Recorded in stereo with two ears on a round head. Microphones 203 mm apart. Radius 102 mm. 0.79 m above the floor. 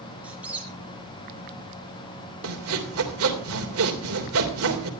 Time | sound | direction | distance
0.2 | a squeak | 5° right (ahead or behind) | 4.5 m
2.4 | sawing | 65° right (ahead or behind) | 3 m